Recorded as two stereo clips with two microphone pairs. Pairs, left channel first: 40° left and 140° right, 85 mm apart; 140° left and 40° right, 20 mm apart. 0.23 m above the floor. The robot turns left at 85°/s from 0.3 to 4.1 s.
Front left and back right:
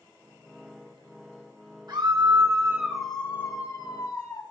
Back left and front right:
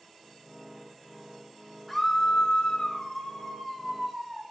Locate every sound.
1.9 s a scream: 165° right, 1.4 m; by 4.4 s 5° left, 1.4 m